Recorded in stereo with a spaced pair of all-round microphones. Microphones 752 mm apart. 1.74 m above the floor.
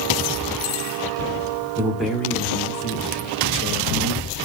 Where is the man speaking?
5° right (ahead or behind), 5 m; by 4.5 s 25° left (ahead or behind), 5.5 m.